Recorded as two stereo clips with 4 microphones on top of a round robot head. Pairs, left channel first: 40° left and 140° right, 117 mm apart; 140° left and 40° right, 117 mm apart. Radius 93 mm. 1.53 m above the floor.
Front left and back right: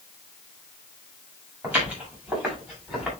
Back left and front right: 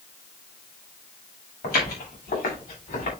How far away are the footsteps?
About 7 m.